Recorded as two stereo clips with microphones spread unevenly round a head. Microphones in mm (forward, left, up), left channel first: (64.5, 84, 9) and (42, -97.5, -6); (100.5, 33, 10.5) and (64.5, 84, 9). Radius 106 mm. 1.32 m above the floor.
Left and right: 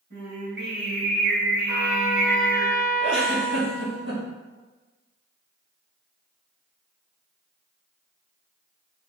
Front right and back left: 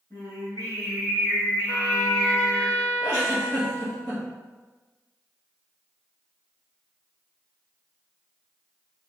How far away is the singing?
About 3 m.